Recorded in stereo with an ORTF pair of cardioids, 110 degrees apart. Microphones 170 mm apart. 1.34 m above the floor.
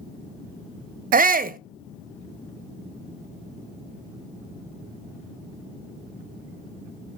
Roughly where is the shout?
Ahead right.